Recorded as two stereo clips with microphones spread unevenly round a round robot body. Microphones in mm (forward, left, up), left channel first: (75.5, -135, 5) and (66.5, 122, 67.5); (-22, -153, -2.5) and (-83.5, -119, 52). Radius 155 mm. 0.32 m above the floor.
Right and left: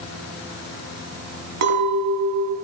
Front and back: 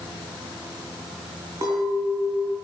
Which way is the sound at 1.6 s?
65° left.